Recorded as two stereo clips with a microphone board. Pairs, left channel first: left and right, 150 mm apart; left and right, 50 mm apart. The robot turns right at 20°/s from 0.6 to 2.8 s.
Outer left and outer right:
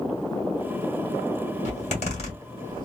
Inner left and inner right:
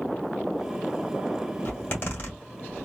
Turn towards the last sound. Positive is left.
turn(degrees=35)  # may be behind; listen again after turning